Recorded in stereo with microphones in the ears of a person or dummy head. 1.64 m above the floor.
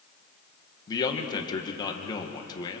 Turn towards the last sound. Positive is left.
turn(degrees=30)  # may be behind; listen again after turning